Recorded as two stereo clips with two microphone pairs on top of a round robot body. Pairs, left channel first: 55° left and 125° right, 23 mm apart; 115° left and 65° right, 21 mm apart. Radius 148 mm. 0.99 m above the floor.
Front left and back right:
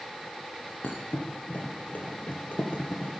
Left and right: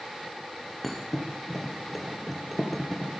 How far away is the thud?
About 4 m.